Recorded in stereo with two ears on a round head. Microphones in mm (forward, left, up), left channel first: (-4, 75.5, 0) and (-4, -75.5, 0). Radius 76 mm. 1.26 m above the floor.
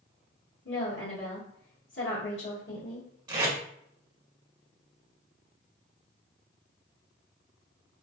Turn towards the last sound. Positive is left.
turn(degrees=-25)  # may be behind; listen again after turning